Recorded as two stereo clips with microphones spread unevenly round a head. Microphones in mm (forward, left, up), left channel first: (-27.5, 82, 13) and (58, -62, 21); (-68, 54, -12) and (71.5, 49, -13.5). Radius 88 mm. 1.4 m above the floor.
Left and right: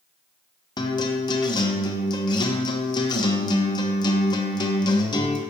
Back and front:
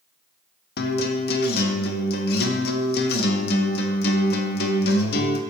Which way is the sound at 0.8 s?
175° right.